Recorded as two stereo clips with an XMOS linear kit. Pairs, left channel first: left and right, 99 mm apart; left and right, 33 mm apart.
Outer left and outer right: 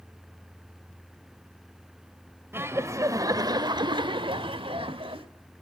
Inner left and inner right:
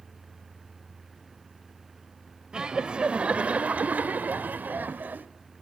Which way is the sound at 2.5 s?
25° right (ahead or behind).